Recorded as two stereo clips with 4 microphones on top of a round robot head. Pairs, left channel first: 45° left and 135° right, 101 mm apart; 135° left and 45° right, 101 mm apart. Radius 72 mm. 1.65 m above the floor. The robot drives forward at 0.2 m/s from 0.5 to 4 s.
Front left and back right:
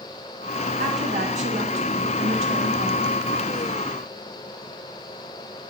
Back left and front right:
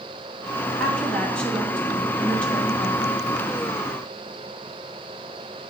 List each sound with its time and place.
0.8 s a woman speaking: 140° right, 2.5 m; by 3.2 s 150° right, 2.5 m